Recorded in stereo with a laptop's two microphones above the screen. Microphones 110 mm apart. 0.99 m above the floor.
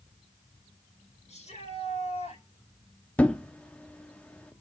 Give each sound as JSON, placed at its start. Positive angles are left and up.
{"t": 1.3, "sound": "a shout", "side_deg": 85, "distance_m": 6.0}
{"t": 3.2, "sound": "a thud", "side_deg": 10, "distance_m": 0.7}